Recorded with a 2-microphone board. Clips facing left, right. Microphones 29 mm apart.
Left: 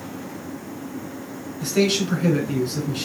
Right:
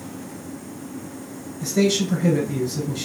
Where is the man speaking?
60° left (ahead or behind), 4.5 m.